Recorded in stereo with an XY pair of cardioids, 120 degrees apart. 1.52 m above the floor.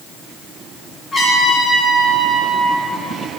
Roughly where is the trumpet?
Ahead left.